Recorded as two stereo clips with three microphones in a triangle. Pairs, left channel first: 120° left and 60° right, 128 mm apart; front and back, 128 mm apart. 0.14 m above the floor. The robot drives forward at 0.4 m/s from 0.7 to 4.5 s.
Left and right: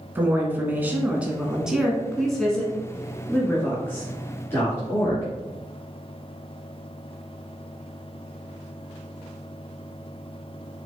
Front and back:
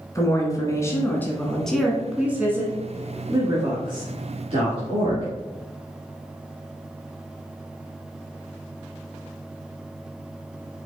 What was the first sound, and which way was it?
A woman speaking, 5° right.